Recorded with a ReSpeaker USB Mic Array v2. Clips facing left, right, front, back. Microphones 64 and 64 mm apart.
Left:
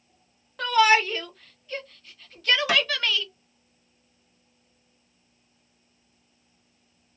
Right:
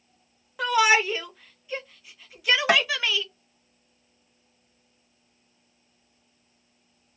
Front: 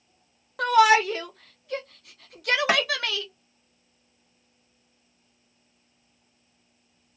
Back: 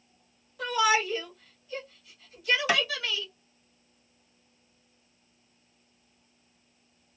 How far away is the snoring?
No snoring in this recording.